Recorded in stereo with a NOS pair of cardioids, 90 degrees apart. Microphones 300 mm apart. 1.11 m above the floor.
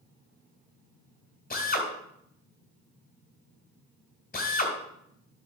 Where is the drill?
30° left, 2.5 m.